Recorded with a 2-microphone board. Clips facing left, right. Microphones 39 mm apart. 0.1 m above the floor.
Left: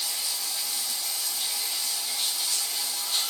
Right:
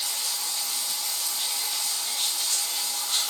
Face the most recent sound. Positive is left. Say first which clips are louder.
# right 1 dB
turn(degrees=-55)  # may be behind; listen again after turning